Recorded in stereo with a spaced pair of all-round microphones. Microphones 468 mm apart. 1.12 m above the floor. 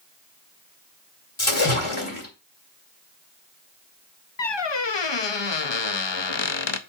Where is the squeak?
60° left (ahead or behind), 0.7 m.